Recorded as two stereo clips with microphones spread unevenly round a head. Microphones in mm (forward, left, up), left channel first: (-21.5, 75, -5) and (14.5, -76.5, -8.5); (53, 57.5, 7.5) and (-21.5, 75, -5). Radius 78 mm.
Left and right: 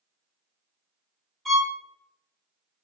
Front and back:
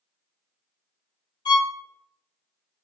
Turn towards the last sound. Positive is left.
turn(degrees=15)